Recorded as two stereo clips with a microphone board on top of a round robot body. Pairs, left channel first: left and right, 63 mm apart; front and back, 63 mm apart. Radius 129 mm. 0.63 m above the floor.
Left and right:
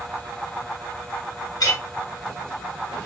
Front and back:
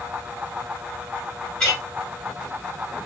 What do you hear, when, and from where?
1.6 s a clink: 80° left, 3 m